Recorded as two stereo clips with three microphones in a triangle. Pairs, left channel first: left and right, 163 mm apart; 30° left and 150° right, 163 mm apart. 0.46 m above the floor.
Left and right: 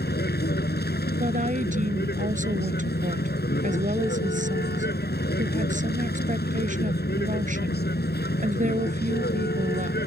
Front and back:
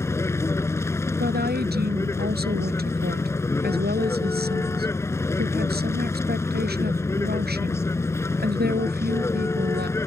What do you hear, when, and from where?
0.0 s a vehicle: 105° left
1.2 s a woman speaking: 130° right